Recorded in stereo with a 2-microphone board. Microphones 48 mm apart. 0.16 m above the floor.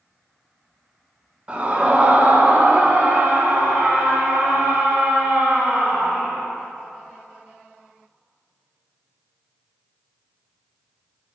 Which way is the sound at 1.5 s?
30° right (ahead or behind).